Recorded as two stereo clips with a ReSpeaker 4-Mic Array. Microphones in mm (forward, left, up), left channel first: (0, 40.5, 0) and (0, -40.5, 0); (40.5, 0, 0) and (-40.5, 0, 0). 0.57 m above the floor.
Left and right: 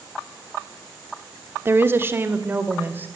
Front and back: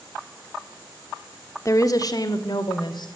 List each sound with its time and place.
1.6 s a woman speaking: 40° right, 1.5 m; by 3.1 s 25° right, 3 m